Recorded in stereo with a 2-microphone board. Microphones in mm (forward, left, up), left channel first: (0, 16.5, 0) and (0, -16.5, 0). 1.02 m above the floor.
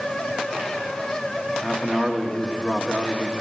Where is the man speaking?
15° left (ahead or behind), 1.5 m.